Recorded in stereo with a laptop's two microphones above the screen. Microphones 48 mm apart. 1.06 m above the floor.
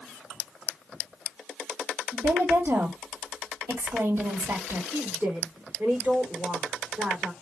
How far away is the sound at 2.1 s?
About 2 m.